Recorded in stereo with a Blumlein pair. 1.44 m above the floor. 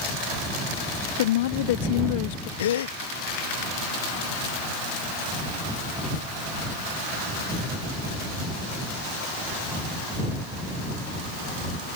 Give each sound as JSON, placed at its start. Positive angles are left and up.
{"t": 1.2, "sound": "a woman speaking", "azimuth_deg": 55}
{"t": 2.6, "sound": "a gasp", "azimuth_deg": 60}